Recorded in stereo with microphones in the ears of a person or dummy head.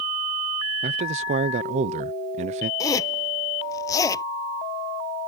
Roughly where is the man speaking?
Right.